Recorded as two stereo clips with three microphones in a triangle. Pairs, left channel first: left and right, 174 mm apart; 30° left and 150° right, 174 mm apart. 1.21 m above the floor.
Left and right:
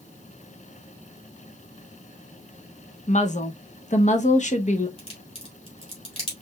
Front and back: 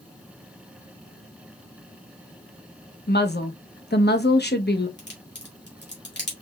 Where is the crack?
35° left, 2 m.